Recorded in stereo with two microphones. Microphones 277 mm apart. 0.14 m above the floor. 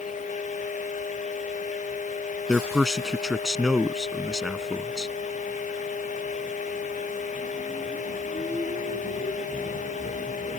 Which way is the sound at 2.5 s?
Centre (ahead or behind).